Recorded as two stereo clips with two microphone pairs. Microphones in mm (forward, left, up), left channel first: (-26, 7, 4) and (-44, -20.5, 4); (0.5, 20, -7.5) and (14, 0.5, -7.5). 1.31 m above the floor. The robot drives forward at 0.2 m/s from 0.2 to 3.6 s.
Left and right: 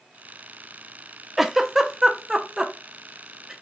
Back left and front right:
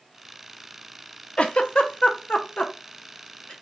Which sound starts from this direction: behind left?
A giggle, at 1.4 s.